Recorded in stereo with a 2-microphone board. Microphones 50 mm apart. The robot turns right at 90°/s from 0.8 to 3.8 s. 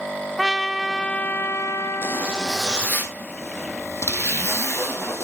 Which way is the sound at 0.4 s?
5° right.